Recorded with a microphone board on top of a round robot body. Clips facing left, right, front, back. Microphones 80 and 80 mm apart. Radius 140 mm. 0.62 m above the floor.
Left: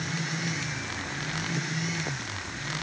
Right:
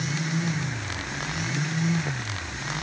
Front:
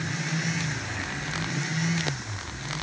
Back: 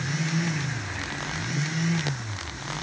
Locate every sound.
Only background noise.